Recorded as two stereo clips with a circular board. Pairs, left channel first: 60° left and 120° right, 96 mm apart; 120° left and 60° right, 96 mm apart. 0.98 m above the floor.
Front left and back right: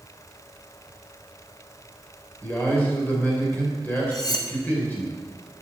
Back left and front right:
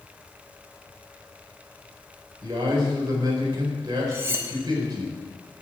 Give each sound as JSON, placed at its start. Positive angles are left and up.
{"t": 2.4, "sound": "a man speaking", "azimuth_deg": -10, "distance_m": 4.5}
{"t": 4.1, "sound": "cutlery clinking", "azimuth_deg": 10, "distance_m": 1.1}